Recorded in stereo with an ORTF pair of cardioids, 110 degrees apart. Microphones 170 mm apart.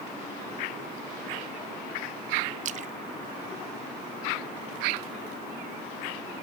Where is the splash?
45° right, 0.7 m.